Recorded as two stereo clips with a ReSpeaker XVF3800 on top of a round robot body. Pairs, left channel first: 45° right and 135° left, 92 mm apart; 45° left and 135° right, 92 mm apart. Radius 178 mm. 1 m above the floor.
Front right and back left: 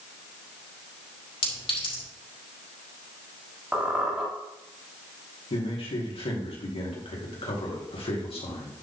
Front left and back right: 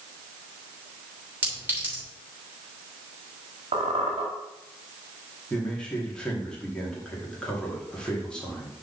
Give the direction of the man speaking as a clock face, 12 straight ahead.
1 o'clock.